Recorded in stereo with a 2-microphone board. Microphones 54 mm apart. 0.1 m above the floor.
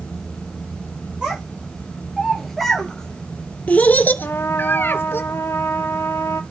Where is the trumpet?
55° left (ahead or behind), 0.8 m.